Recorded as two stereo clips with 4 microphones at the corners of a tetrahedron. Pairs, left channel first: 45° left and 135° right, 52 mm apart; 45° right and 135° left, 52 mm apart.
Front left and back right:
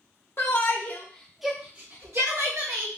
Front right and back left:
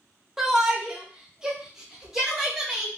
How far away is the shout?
About 1.1 m.